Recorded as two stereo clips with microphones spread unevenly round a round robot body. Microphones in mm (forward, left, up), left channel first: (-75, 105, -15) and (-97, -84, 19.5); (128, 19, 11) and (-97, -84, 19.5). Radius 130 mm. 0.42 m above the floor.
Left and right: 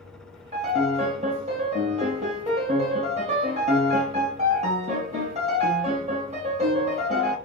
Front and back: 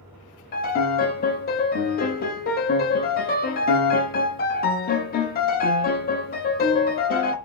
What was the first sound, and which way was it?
A piano, 30° right.